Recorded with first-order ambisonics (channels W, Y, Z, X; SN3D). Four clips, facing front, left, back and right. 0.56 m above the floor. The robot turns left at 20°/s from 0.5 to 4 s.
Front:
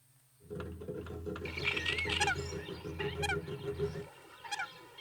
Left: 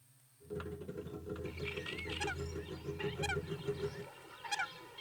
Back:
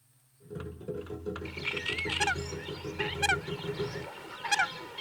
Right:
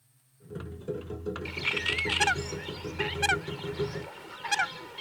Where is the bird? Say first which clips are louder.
Right 15 dB, front 1 dB; 85° right; by 5.0 s 135° right.